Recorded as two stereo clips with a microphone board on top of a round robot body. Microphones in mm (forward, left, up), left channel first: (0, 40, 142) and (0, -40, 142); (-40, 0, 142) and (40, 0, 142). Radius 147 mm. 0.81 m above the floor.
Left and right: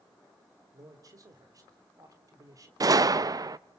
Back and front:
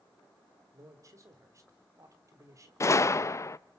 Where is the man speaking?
45° right, 3.5 m.